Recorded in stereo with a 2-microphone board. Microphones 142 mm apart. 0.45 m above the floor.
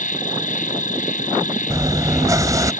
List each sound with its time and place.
0.0 s an insect: 70° left (ahead or behind)
1.7 s chewing: 25° right (ahead or behind)